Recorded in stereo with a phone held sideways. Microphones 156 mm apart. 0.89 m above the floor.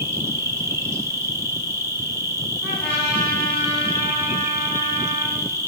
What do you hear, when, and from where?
0.0 s an insect: 20° right (ahead or behind), 0.8 m
2.6 s a trumpet: 5° left (ahead or behind), 2.5 m